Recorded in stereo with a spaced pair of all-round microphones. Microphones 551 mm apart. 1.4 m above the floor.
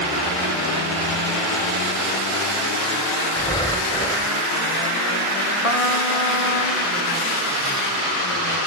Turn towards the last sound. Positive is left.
turn(degrees=80)